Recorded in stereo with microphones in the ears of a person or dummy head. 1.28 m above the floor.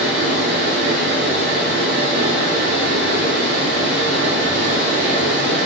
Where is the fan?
50° right (ahead or behind), 3 m.